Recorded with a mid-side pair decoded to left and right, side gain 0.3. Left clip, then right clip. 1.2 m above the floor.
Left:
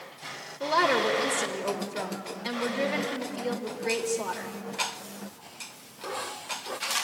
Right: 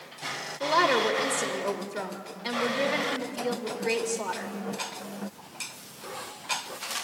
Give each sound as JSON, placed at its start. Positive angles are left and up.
{"t": 0.6, "sound": "a woman speaking", "azimuth_deg": -10, "distance_m": 3.0}